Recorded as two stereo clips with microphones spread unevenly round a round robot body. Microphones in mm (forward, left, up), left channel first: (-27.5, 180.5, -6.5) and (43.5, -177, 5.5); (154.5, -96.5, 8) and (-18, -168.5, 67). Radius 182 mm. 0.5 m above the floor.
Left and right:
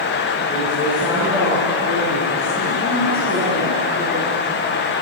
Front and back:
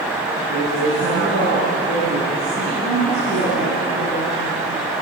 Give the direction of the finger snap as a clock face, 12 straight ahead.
I don't hear a finger snap.